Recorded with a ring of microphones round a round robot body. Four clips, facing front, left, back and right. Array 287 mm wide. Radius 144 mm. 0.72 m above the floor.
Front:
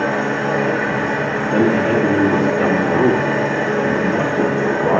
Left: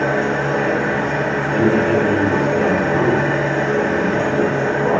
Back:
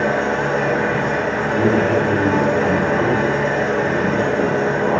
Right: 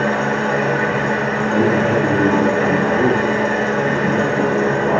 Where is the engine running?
95° right, 1.1 m.